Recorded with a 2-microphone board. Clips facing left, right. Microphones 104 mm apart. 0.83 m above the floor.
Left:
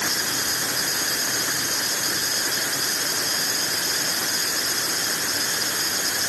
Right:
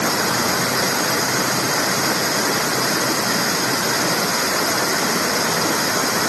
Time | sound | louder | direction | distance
0.0 | running water | right 10 dB | 75° right (ahead or behind) | ?